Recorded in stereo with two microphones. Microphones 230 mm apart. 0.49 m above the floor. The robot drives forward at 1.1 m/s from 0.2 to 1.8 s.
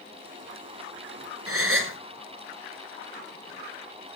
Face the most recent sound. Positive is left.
turn(degrees=-60)  # may be behind; listen again after turning